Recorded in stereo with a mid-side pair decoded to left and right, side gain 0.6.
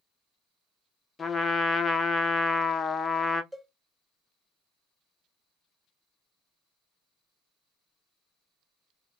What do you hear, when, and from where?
1.2 s a trumpet: 25° left, 0.6 m
3.5 s a cowbell: 10° right, 0.7 m